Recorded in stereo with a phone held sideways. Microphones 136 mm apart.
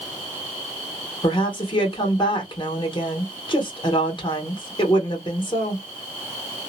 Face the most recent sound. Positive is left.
turn(degrees=35)  # may be behind; listen again after turning